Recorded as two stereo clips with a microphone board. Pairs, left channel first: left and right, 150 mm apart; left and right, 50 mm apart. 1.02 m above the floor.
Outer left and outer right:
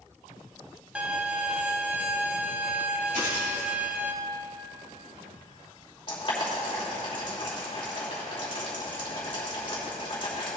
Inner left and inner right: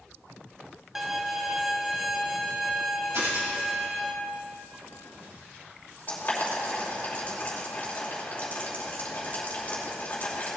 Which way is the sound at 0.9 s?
5° right (ahead or behind).